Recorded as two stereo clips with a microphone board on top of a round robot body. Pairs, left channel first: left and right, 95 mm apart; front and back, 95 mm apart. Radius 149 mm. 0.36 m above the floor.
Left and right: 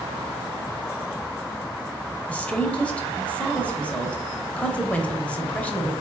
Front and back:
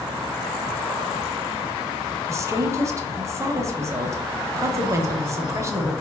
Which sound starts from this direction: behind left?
A woman speaking, at 2.3 s.